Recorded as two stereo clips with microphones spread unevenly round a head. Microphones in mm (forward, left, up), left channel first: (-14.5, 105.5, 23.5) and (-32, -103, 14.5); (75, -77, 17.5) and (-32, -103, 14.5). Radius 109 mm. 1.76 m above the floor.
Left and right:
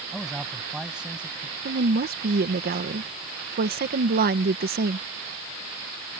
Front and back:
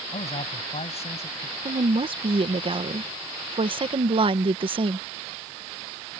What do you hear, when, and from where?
0.1 s a man speaking: 5° right; by 1.6 s 10° right
1.6 s a woman speaking: 135° right